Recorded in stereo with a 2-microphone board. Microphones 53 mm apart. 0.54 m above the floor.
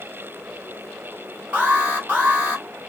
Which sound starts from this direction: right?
An alarm, at 1.5 s.